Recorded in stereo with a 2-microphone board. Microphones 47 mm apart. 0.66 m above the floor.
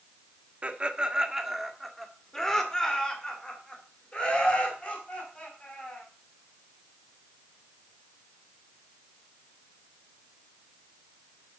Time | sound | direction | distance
0.6 | laughter | 30° right (ahead or behind) | 1.4 m